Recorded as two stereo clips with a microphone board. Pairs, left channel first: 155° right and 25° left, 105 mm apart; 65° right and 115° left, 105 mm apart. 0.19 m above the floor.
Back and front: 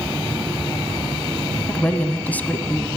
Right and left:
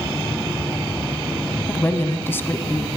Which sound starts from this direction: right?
A woman speaking, at 1.7 s.